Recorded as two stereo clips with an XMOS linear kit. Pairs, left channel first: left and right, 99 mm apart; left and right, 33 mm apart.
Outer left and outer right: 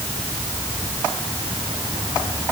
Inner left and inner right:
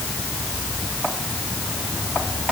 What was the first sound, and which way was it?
Only background noise.